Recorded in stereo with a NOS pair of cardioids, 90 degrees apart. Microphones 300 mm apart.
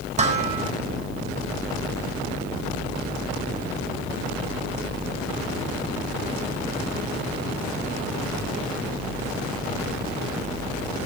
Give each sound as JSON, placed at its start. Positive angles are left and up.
{"t": 0.2, "sound": "dishes clattering", "azimuth_deg": -20, "distance_m": 6.5}